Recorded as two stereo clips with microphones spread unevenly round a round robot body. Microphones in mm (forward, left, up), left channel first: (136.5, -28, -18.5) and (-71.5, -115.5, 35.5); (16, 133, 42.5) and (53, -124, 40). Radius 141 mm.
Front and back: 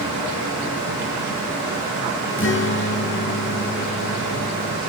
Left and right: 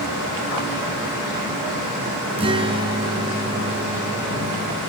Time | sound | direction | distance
2.4 | a guitar | 10° right | 3.5 m